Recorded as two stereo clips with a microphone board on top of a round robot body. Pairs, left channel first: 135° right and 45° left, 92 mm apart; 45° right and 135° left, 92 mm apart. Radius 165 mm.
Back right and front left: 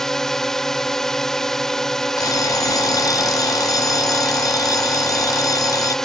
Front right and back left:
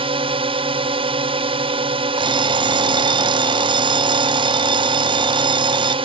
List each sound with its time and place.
0.0 s a drone: 140° left
2.2 s an alarm clock: 175° left